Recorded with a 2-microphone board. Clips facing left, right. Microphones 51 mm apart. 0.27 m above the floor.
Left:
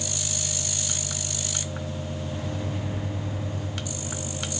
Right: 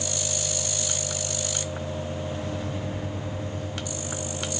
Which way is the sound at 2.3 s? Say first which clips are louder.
Right 1 dB; 5° left (ahead or behind).